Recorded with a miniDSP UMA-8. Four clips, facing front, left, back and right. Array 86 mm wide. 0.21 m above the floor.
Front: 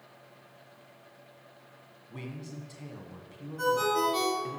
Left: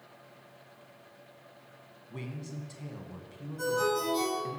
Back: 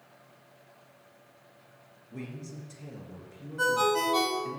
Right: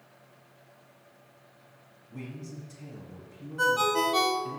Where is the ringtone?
110° right, 1.5 m.